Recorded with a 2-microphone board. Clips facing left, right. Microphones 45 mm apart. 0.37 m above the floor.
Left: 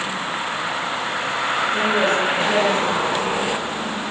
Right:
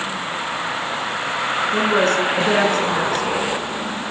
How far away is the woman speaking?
About 5 m.